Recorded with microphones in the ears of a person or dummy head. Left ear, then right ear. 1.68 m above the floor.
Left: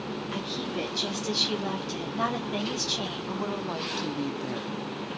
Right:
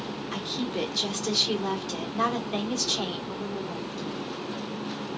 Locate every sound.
0.3 s a woman speaking: 15° right (ahead or behind), 1.8 m
3.3 s a woman speaking: 70° left (ahead or behind), 1.0 m